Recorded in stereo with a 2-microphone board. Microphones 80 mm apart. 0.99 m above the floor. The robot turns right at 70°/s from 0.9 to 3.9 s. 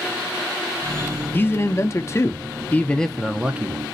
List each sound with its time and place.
1.3 s a man speaking: 45° left, 0.5 m; by 3.9 s 140° right, 0.5 m